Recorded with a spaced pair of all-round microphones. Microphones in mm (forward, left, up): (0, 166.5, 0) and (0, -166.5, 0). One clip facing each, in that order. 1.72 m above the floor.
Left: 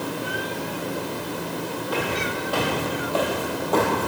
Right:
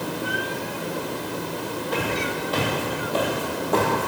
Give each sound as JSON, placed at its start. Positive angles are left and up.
{"t": 1.9, "sound": "footsteps", "side_deg": -30, "distance_m": 2.5}